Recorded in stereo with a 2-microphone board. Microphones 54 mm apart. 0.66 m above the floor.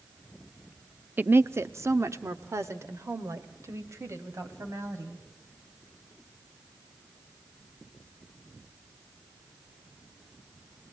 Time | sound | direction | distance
1.2 | a woman speaking | 35° right (ahead or behind) | 0.6 m